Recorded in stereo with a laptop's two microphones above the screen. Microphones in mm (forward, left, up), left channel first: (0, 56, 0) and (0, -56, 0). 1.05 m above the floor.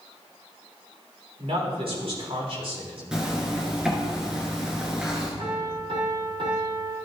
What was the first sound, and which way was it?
A man speaking, 65° right (ahead or behind).